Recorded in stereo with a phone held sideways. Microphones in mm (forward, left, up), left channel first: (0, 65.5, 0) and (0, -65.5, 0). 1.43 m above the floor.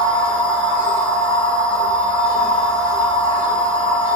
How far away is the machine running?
About 4 m.